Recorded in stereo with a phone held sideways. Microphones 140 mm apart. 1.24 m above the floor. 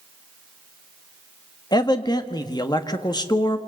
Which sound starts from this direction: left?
A man speaking, at 1.7 s.